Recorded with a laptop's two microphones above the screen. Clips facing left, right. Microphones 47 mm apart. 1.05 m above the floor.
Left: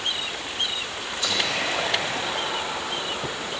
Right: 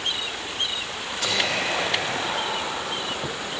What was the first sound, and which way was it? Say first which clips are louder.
Whispering: right 1 dB; 65° right (ahead or behind).